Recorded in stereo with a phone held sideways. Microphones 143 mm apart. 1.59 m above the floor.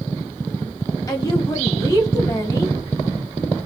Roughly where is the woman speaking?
Left.